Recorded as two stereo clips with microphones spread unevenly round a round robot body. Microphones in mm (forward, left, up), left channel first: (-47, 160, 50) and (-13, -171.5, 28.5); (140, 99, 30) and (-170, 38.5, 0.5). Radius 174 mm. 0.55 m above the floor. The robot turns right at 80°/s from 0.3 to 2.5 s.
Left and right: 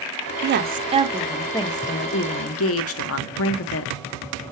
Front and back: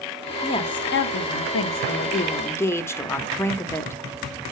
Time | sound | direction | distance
0.4 | a woman speaking | 70° right | 0.8 m